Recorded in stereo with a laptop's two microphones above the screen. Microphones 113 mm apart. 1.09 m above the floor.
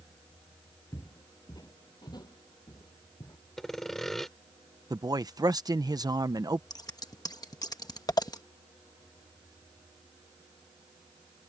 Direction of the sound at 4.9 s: 35° right (ahead or behind).